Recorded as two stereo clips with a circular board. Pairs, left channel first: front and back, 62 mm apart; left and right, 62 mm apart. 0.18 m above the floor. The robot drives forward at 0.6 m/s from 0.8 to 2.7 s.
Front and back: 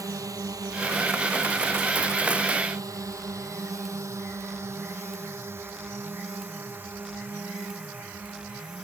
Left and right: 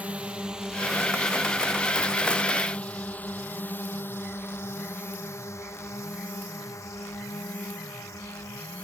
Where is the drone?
160° right; by 8.8 s 115° left.